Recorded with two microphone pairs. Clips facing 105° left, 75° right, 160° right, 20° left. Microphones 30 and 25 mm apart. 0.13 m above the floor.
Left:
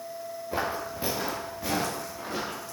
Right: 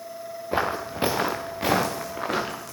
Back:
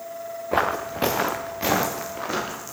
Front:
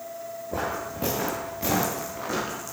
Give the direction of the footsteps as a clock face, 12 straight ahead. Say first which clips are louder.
Right 5 dB, back 7 dB; 5 o'clock.